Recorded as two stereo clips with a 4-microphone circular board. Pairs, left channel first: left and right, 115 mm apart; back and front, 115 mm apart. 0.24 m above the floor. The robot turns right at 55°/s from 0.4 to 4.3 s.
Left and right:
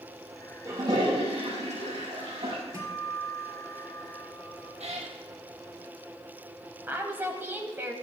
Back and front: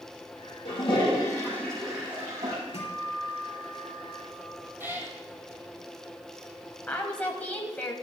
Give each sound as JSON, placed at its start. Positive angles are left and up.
{"t": 0.7, "sound": "a toilet flushing", "azimuth_deg": -155, "distance_m": 5.5}
{"t": 2.7, "sound": "a guitar", "azimuth_deg": -150, "distance_m": 4.0}
{"t": 4.8, "sound": "a cat meowing", "azimuth_deg": -70, "distance_m": 2.5}
{"t": 6.9, "sound": "a woman speaking", "azimuth_deg": -125, "distance_m": 1.1}